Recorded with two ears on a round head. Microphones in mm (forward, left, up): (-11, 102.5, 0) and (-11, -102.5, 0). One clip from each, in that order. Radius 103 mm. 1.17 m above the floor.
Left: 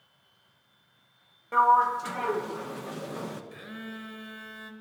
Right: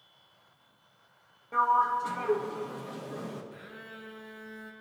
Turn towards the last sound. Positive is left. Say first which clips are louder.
# left 4 dB
turn(degrees=50)  # may be behind; listen again after turning